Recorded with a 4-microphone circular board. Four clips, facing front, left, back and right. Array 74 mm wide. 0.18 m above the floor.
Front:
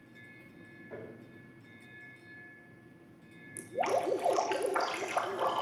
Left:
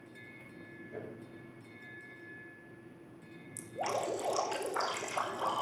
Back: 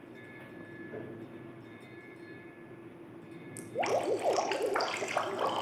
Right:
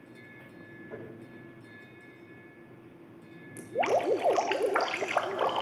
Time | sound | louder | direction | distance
0.9 | tapping | right 1 dB, back 1 dB | 60° right | 6.5 m
3.6 | dripping | right 8 dB, even | 100° right | 0.9 m